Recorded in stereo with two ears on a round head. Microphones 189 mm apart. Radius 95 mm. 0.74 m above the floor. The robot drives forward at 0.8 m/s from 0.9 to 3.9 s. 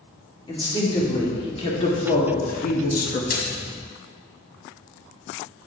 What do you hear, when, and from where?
0.5 s a woman speaking: 25° left (ahead or behind), 2.5 m; by 3.2 s 45° left (ahead or behind), 1.3 m
3.3 s a splash: 50° left (ahead or behind), 2.5 m; by 3.5 s 55° left (ahead or behind), 2 m